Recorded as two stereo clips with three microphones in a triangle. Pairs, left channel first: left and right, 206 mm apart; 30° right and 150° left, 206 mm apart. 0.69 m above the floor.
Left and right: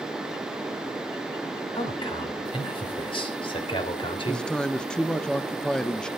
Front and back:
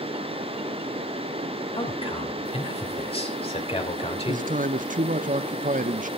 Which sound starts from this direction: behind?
A man speaking, at 4.3 s.